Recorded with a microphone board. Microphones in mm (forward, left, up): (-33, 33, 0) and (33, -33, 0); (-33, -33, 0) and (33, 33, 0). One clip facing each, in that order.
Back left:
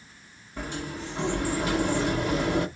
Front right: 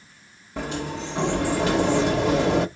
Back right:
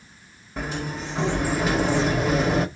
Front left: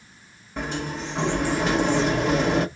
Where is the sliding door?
50° right, 1.0 m.